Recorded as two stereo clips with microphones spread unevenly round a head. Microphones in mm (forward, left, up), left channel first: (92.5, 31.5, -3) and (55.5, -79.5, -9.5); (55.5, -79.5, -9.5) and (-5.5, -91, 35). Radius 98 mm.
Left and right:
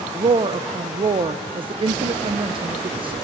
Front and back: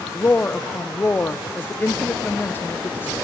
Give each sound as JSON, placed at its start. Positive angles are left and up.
{"t": 0.1, "sound": "a woman speaking", "azimuth_deg": -60, "distance_m": 0.6}